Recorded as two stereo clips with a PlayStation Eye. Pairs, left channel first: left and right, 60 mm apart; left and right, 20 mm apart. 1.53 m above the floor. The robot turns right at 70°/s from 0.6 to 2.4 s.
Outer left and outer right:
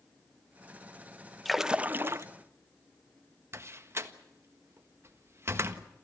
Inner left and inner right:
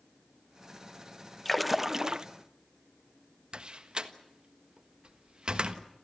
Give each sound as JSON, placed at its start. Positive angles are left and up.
{"t": 1.4, "sound": "a splash", "azimuth_deg": 175, "distance_m": 0.9}
{"t": 3.5, "sound": "a door slam", "side_deg": -45, "distance_m": 1.4}